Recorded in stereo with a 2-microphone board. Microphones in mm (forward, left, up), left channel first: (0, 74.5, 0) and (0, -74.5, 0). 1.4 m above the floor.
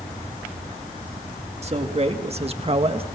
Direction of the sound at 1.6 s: 40° right (ahead or behind).